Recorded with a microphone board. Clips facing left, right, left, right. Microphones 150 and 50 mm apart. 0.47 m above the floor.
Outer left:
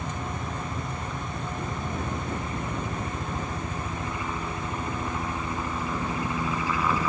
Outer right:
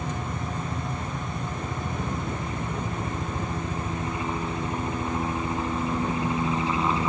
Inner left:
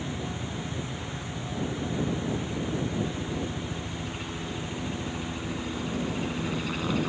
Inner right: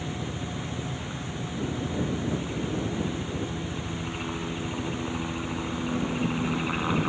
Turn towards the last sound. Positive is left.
turn(degrees=-25)  # may be behind; listen again after turning